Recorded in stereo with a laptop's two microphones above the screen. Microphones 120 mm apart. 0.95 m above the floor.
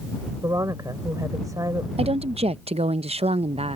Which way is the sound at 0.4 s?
30° right (ahead or behind).